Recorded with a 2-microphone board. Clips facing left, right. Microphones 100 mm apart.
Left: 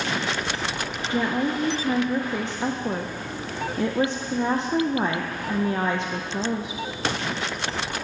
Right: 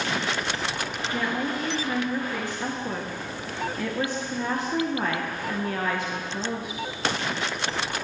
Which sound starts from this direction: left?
A woman speaking, at 1.1 s.